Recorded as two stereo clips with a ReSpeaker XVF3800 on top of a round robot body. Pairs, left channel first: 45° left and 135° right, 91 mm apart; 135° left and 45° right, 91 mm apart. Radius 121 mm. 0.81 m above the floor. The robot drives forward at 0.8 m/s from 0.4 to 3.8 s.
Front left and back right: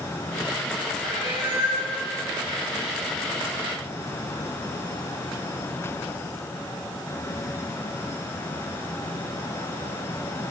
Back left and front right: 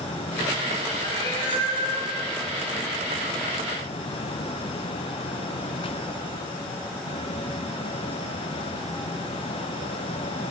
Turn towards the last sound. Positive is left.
turn(degrees=180)